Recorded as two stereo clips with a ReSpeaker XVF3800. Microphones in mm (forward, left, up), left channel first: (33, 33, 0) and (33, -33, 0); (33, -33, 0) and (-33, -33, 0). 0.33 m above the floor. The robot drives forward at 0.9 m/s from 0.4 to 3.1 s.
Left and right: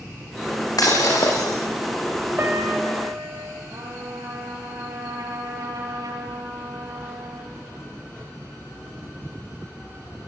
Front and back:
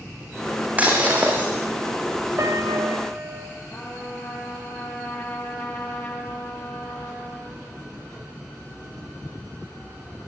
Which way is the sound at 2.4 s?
145° right.